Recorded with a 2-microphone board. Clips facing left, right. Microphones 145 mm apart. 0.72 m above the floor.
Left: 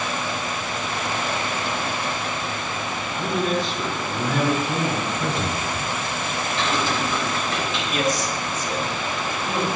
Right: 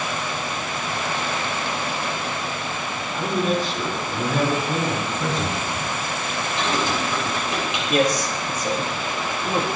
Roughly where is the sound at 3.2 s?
Centre.